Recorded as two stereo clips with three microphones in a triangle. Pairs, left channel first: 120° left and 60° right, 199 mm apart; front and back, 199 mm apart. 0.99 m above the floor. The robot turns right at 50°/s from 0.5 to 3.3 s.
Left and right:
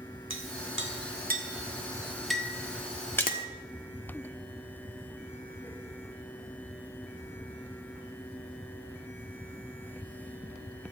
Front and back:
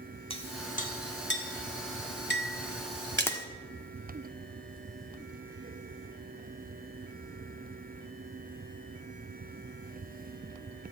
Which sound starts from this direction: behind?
A splash, at 3.2 s.